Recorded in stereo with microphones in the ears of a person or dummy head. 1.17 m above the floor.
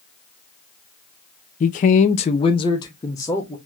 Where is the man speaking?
35° left (ahead or behind), 0.5 m; by 3.5 s 15° left (ahead or behind), 1.2 m.